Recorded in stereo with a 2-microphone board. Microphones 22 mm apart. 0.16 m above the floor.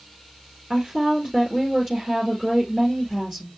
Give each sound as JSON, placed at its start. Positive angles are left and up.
{"t": 0.7, "sound": "a woman speaking", "side_deg": 10, "distance_m": 2.5}